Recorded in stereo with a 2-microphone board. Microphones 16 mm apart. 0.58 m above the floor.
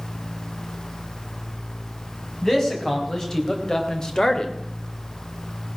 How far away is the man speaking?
About 5 m.